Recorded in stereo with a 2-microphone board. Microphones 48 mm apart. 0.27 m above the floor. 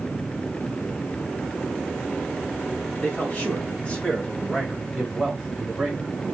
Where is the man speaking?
40° left (ahead or behind), 1.9 m; by 6.2 s 20° right (ahead or behind), 1.4 m.